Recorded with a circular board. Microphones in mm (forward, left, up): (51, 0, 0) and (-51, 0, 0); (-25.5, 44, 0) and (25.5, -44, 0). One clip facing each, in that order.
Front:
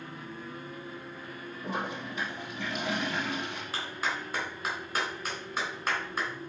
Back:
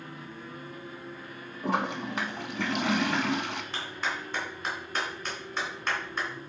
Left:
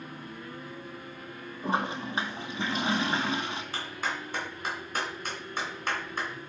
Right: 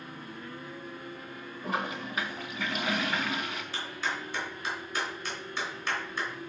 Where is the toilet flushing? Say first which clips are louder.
Back 6 dB, left 3 dB; straight behind, 0.7 m.